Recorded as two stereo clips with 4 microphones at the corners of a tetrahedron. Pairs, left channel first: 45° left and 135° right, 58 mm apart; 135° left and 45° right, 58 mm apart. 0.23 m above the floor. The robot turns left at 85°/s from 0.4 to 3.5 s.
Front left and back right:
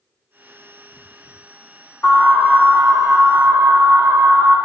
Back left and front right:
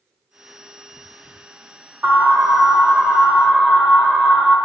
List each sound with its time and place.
2.0 s an alarm: 10° left, 4.5 m; by 4.5 s 115° right, 4.5 m